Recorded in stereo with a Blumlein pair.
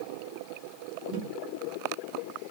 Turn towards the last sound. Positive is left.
turn(degrees=-35)